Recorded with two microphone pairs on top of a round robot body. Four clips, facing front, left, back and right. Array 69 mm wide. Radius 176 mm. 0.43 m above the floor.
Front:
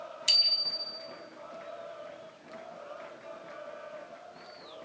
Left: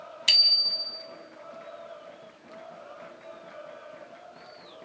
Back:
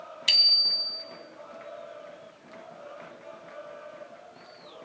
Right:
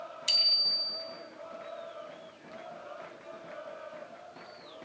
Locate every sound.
0.3 s a bicycle bell: 120° left, 3 m